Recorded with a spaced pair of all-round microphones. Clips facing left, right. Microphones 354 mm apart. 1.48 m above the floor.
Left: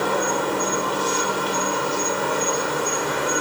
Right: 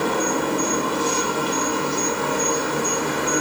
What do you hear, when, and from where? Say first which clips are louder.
0.0 s an insect: right 1 dB; 35° right (ahead or behind), 1.5 m